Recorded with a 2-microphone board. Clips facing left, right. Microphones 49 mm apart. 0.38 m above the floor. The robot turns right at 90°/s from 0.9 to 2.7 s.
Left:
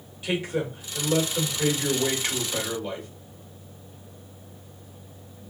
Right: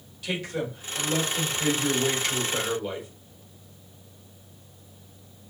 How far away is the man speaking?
About 1.6 m.